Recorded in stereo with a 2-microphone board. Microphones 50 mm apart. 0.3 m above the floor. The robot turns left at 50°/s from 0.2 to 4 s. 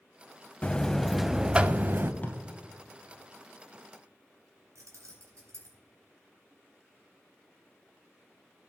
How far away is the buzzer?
About 0.6 m.